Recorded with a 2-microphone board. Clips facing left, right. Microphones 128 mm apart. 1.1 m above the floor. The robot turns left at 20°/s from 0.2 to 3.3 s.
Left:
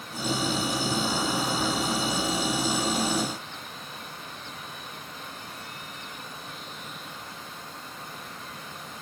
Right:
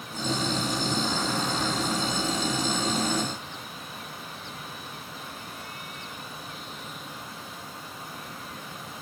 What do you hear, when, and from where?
Only background noise.